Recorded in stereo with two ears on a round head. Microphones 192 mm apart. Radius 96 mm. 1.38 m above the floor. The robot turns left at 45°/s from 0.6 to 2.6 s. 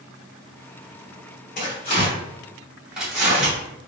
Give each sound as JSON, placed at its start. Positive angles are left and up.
{"t": 1.6, "sound": "tearing paper", "side_deg": 40, "distance_m": 1.5}